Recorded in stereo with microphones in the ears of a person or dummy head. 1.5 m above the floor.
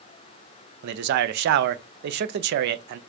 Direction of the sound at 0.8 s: 60° right (ahead or behind).